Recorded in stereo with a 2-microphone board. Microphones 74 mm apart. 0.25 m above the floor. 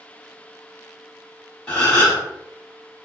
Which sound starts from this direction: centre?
A gasp, at 1.7 s.